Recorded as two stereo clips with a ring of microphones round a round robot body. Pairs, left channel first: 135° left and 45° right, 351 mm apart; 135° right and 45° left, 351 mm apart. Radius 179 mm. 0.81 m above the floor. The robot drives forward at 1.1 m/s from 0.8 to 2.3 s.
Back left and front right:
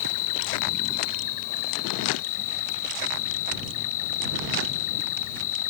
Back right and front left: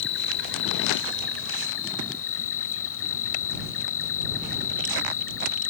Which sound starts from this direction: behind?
An insect, at 0.0 s.